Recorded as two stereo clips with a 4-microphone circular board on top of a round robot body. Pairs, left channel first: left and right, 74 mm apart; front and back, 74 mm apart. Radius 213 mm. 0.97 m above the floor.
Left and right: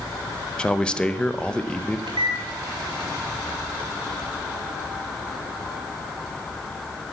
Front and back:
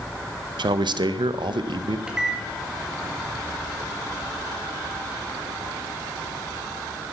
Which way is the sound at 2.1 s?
100° right.